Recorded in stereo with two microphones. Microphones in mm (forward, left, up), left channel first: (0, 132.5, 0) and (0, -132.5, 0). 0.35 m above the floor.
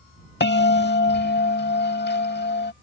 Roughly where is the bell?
Left.